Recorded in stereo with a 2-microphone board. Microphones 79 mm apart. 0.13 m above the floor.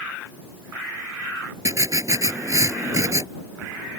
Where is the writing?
45° right (ahead or behind).